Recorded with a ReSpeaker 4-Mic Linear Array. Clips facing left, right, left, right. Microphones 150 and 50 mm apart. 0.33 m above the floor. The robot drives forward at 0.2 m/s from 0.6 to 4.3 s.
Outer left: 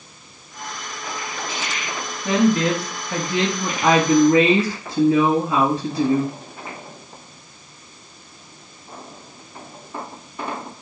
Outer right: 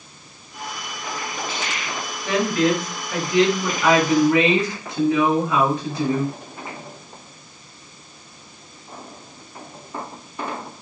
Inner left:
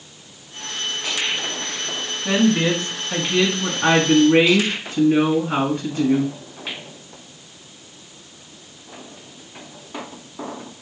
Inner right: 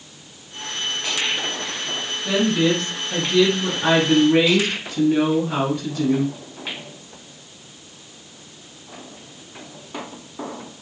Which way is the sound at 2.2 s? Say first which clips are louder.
Outer left 2 dB, inner left 1 dB; 35° left (ahead or behind).